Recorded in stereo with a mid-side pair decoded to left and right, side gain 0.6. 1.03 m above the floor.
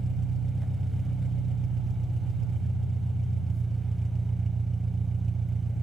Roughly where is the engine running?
Ahead.